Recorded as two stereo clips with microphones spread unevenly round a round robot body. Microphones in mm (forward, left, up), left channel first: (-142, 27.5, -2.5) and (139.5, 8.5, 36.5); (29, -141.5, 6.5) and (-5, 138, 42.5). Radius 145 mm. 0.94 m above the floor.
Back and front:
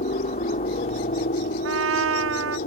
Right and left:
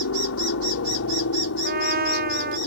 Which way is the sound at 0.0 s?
120° right.